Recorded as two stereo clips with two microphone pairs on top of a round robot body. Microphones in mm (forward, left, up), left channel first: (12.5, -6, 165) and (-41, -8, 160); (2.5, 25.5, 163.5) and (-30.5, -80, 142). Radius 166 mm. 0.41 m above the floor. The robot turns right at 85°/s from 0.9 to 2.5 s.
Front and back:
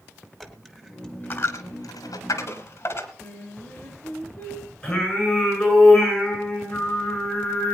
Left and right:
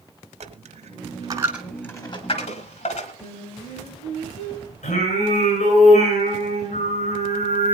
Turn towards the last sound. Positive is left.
turn(degrees=80)